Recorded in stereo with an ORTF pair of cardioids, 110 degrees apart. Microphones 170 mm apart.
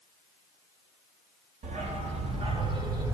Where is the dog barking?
45° right, 1.9 m; by 3.1 s 20° right, 1.4 m.